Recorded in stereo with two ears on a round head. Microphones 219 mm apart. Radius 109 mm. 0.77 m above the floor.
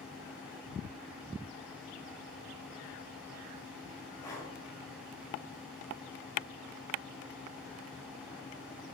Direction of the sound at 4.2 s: 15° left (ahead or behind).